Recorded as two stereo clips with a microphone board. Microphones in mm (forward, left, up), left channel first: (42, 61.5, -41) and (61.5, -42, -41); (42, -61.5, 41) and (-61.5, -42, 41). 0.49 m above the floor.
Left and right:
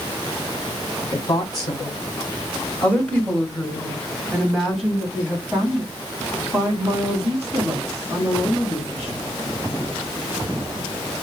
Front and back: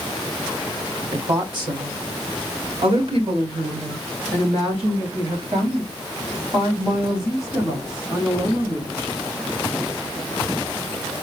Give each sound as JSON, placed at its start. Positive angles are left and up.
{"t": 1.1, "sound": "a woman speaking", "azimuth_deg": 125, "distance_m": 1.5}